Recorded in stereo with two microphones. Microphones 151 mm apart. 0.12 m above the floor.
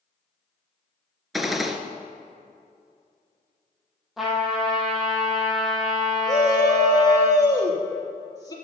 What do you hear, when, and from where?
1.3 s a gunshot: centre (ahead or behind), 1.2 m
4.2 s a trumpet: centre (ahead or behind), 4 m
6.3 s a shout: 25° left (ahead or behind), 2.5 m